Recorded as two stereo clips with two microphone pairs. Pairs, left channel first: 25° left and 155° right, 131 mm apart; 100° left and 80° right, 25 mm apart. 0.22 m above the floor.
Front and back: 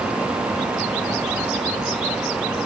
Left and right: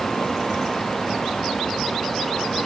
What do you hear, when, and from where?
Only background noise.